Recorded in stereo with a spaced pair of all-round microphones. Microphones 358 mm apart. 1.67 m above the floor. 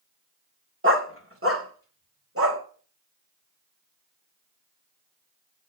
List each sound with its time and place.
0.8 s a dog barking: 35° right (ahead or behind), 1.7 m